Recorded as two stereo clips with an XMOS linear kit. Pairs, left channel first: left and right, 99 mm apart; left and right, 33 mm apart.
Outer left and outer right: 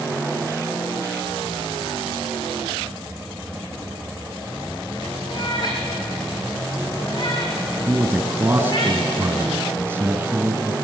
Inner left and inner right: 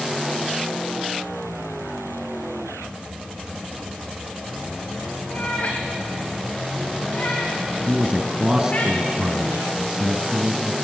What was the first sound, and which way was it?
A cat meowing, 45° left (ahead or behind).